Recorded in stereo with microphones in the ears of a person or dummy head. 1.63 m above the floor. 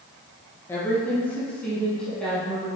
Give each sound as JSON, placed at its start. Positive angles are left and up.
{"t": 0.7, "sound": "a woman speaking", "side_deg": 15, "distance_m": 1.8}